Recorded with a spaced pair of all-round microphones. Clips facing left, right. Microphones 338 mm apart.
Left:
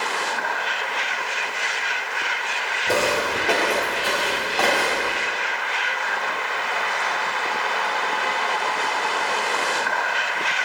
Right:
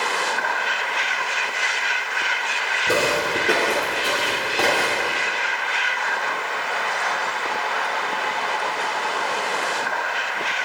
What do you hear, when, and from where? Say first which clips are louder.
2.9 s footsteps: right 1 dB; 15° right (ahead or behind), 1.1 m; by 5.2 s 30° right (ahead or behind), 2.5 m